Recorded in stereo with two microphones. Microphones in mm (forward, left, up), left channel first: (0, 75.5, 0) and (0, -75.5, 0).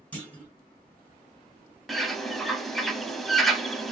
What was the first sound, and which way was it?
A clunk, 10° left (ahead or behind).